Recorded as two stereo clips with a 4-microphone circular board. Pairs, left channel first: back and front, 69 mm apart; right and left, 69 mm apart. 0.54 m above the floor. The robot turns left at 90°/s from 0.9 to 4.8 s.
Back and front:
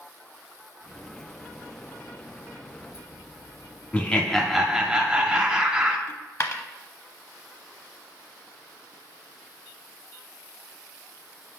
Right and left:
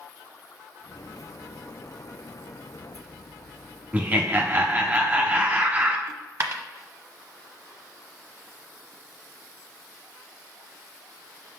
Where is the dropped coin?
135° left, 0.7 m.